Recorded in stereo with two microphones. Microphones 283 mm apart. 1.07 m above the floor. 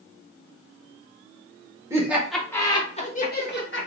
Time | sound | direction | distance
1.9 | laughter | 10° right (ahead or behind) | 1.1 m